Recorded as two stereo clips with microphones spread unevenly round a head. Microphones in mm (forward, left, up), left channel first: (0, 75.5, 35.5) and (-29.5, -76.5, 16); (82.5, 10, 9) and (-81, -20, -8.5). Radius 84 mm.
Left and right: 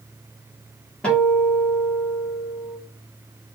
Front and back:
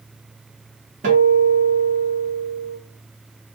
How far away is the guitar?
About 1.3 m.